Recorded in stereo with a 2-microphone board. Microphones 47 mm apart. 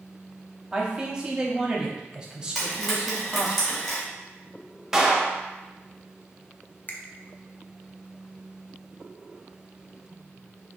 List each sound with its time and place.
0.7 s a man speaking: 20° right (ahead or behind), 0.8 m
2.5 s frying: 5° right (ahead or behind), 1.8 m
4.9 s a clap: 10° right (ahead or behind), 0.5 m
6.9 s a finger snap: 35° left (ahead or behind), 0.5 m